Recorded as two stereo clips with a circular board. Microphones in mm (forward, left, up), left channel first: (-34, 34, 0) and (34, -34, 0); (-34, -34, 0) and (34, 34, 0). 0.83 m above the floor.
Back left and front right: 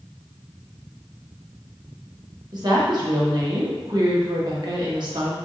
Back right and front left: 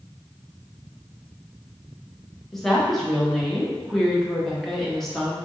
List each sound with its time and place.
2.5 s a woman speaking: 50° right, 1.0 m